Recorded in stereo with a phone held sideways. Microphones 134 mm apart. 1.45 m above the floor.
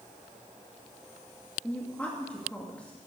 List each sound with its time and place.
1.6 s a woman speaking: 10° left (ahead or behind), 2 m